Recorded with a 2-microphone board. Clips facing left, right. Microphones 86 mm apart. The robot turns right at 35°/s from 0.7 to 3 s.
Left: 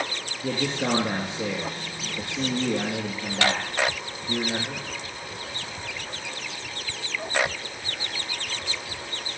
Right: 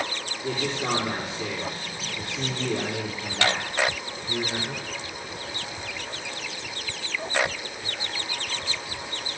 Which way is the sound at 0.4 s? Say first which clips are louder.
Left 2 dB; 90° left.